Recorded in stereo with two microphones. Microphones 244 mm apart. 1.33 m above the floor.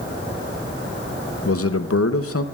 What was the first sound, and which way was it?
A man speaking, 75° left (ahead or behind).